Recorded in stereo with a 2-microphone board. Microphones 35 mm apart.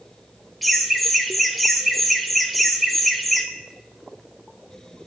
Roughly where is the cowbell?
No cowbell in this recording.